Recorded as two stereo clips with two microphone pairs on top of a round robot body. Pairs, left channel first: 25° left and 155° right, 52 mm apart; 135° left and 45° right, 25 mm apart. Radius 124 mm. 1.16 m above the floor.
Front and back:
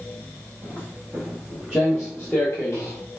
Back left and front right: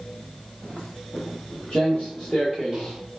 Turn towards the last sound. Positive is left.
turn(degrees=35)